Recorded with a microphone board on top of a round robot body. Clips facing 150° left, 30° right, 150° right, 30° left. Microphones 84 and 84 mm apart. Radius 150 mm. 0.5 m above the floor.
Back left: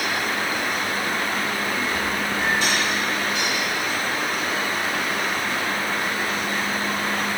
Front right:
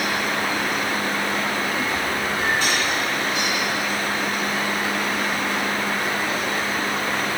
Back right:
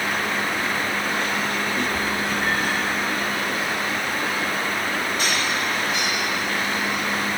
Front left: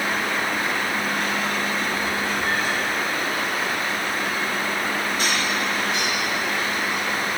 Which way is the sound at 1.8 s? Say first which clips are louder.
Front right 1 dB, back right 1 dB; 135° right.